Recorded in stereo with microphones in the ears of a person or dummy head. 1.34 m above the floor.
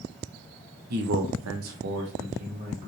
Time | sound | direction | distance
0.9 | a man speaking | 50° right (ahead or behind) | 0.9 m